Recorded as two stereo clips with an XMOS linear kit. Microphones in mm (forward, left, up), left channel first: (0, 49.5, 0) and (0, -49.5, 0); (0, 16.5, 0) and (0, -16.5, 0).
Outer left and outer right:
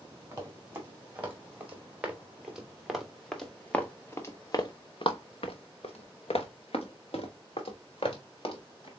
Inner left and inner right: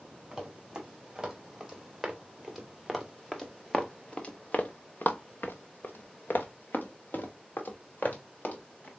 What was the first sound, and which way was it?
Running footsteps, 20° right (ahead or behind).